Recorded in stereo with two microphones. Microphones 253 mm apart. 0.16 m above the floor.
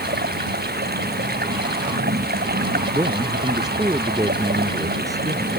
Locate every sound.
0.0 s running water: 35° right (ahead or behind)
2.9 s a man speaking: 10° right (ahead or behind)